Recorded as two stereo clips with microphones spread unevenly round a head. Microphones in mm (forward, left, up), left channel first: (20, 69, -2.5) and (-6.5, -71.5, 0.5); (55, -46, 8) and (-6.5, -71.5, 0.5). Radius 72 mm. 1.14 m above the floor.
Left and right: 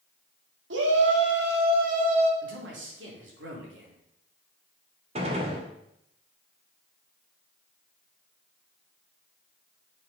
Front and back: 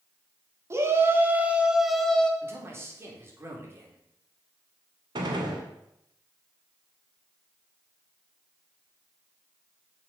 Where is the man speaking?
105° right, 3 m.